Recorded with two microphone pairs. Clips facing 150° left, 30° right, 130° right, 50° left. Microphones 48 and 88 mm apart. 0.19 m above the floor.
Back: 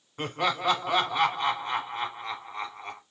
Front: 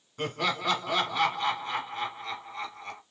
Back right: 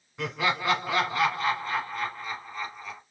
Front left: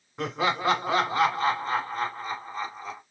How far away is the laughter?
About 1.4 m.